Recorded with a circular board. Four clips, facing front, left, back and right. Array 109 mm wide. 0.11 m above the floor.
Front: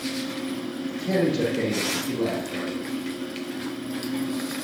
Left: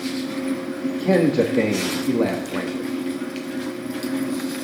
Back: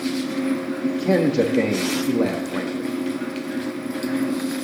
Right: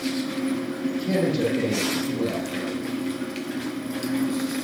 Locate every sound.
1.0 s a man speaking: 130° left, 5 m